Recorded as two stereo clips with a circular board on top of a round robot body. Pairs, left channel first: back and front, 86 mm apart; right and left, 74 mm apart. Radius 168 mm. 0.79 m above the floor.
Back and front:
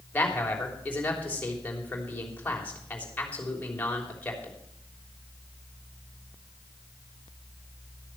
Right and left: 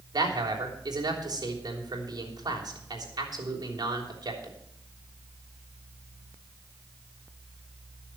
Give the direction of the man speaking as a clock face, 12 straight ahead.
8 o'clock.